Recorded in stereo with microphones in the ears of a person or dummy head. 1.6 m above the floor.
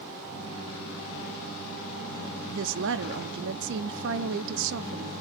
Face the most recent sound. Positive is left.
turn(degrees=-65)  # may be behind; listen again after turning